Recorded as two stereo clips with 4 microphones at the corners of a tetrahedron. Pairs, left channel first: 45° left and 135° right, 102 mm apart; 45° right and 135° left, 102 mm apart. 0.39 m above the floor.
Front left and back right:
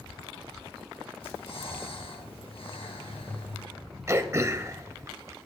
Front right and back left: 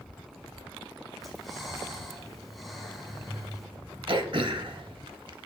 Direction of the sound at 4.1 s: 165° left.